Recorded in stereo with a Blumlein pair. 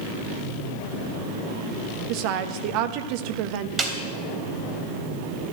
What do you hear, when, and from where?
2.1 s a woman speaking: 45° right, 1.0 m
3.8 s a snare drum: 15° right, 3 m